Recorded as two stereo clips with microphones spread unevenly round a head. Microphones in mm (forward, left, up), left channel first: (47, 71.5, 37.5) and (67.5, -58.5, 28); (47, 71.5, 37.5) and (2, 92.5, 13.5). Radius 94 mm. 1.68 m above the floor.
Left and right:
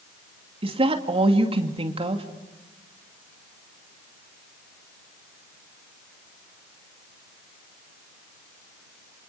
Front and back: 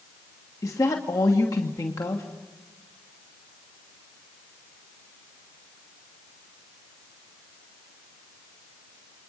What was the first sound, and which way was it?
A woman speaking, 35° right.